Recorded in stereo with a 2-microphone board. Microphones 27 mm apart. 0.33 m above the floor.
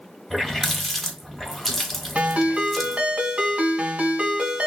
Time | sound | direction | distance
0.3 | a running tap | centre (ahead or behind) | 1.2 m
2.1 | a ringtone | 60° right (ahead or behind) | 1.3 m